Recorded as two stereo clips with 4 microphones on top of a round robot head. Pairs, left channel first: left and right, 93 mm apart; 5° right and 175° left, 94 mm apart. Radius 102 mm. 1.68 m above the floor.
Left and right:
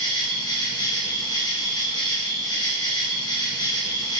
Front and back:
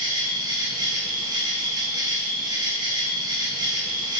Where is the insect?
130° left, 0.9 m.